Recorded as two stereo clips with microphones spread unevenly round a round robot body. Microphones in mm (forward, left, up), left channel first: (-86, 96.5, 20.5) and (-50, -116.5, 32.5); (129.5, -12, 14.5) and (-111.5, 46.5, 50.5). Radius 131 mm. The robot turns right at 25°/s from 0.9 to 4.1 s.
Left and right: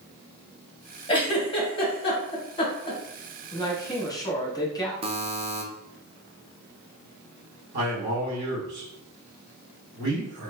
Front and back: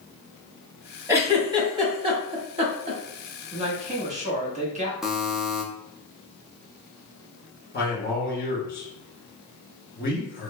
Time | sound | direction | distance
1.1 | a giggle | 80° left | 1.3 m
3.5 | a man speaking | 115° left | 1.1 m
5.0 | a buzzer | 90° right | 0.6 m
7.7 | a man speaking | 50° right | 2.0 m